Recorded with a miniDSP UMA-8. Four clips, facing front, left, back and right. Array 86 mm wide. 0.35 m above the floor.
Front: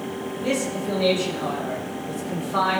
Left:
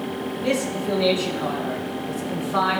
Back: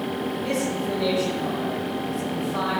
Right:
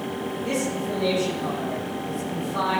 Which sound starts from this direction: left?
A man speaking, at 0.4 s.